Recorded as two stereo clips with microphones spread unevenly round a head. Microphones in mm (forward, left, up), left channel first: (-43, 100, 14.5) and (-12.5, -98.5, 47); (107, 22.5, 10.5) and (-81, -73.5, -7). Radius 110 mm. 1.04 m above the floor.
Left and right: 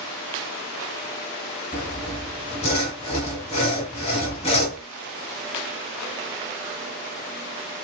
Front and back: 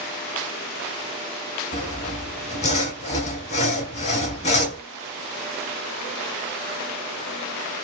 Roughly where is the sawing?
Ahead left.